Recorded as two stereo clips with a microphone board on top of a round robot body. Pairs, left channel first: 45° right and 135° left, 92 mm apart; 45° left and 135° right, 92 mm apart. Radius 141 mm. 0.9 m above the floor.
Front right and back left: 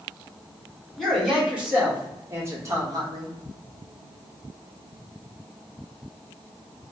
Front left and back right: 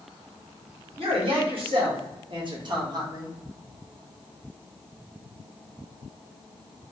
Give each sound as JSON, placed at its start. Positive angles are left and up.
{"t": 1.0, "sound": "a man speaking", "azimuth_deg": -135, "distance_m": 1.6}